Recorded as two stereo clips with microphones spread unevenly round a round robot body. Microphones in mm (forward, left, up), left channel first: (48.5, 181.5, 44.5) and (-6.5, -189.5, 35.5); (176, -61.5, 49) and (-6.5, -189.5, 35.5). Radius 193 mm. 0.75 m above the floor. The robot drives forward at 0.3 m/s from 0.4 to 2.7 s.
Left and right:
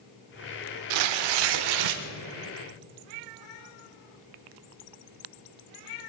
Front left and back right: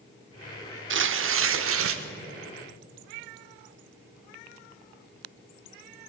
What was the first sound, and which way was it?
Tearing paper, 115° right.